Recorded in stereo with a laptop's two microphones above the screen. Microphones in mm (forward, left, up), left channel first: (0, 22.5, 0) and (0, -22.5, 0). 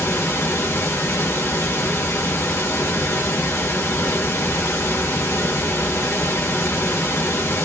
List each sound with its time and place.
0.0 s running water: 70° left (ahead or behind), 1.2 m